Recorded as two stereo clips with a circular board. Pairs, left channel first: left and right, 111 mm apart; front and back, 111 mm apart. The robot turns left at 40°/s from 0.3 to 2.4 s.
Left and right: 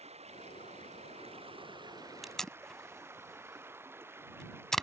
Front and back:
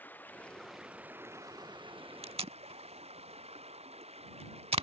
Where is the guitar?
No guitar in this recording.